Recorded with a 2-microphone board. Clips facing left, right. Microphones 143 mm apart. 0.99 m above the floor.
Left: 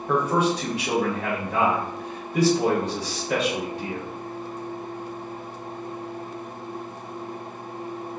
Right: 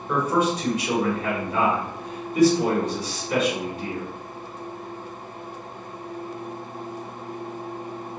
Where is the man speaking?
75° left (ahead or behind), 1.3 m.